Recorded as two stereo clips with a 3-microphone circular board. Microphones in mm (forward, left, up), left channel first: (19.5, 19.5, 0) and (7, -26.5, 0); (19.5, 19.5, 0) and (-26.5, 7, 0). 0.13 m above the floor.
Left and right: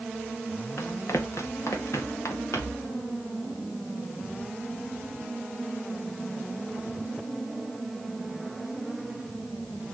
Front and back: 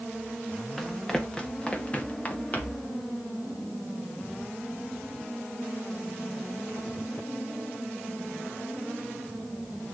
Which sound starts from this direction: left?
Running footsteps, at 0.8 s.